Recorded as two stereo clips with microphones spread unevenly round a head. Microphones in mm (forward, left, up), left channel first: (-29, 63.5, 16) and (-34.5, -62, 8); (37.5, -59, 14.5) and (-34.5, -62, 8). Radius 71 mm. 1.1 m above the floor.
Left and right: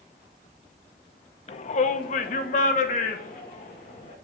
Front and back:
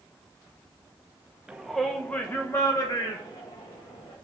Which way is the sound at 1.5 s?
105° left.